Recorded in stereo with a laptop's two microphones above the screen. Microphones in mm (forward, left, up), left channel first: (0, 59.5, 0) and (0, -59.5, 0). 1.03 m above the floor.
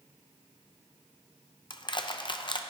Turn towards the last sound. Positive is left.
turn(degrees=40)  # may be behind; listen again after turning